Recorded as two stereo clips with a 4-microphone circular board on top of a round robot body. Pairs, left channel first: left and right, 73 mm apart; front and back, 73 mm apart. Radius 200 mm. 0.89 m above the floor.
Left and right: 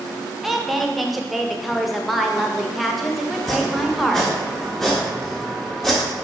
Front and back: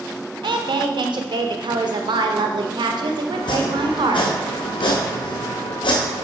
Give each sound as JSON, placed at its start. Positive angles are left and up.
{"t": 0.4, "sound": "a woman speaking", "azimuth_deg": 180, "distance_m": 0.8}
{"t": 3.3, "sound": "chopping", "azimuth_deg": 5, "distance_m": 0.7}